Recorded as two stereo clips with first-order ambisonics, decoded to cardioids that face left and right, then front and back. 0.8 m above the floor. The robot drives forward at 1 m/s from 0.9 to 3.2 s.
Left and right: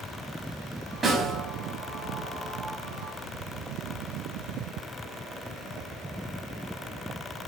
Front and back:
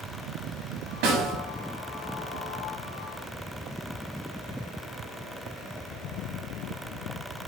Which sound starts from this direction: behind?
A snare drum, at 1.0 s.